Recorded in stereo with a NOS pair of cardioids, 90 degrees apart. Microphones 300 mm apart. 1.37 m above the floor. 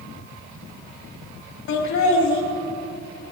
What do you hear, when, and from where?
1.7 s laughter: 65° left, 3 m